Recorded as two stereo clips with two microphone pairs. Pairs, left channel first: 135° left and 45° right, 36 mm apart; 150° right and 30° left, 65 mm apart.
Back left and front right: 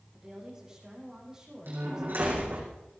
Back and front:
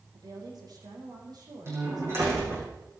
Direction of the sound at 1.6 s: 25° right.